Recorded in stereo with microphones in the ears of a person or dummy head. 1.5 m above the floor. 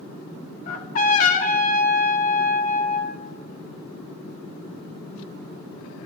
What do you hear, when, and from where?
0.7 s a trumpet: 40° left (ahead or behind), 1.4 m